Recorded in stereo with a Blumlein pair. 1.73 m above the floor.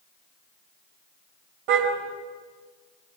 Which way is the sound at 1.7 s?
45° right.